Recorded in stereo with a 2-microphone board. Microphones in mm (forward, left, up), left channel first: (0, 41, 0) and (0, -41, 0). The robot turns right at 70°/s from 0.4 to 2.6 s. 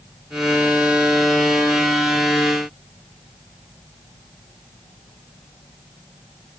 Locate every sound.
Only background noise.